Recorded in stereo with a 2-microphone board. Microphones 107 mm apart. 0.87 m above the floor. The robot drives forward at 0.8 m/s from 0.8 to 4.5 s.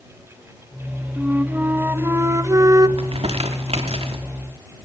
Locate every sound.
1.2 s a flute: 15° right (ahead or behind), 1.8 m; by 2.9 s 35° right (ahead or behind), 0.8 m
3.0 s crumpling: 65° right (ahead or behind), 2.5 m